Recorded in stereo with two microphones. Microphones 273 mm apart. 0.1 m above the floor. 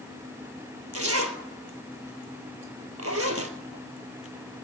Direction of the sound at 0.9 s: 60° right (ahead or behind).